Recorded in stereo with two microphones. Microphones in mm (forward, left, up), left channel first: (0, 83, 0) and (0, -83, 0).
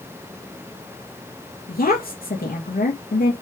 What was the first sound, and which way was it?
A woman speaking, 60° left (ahead or behind).